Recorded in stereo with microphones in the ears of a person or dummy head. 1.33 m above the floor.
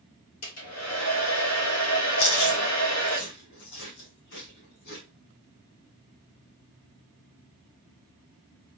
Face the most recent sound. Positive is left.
turn(degrees=60)  # may be behind; listen again after turning